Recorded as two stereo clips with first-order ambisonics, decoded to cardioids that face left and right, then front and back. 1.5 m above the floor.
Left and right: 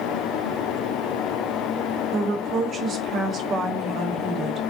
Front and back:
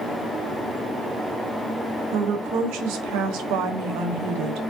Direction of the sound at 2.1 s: 150° right.